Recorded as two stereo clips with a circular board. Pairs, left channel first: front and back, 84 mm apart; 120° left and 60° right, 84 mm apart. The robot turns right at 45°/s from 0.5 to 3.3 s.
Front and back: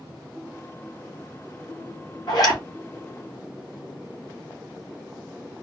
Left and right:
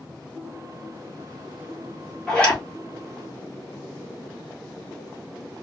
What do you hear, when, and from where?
2.3 s a zipper: 35° left, 2.5 m; by 2.6 s 50° left, 2.5 m